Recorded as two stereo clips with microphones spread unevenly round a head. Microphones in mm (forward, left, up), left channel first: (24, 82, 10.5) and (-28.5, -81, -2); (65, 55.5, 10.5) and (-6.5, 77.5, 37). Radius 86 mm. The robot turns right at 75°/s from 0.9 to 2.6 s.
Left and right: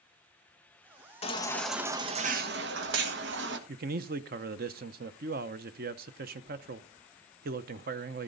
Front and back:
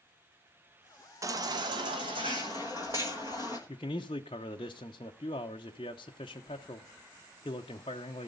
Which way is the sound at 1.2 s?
125° left.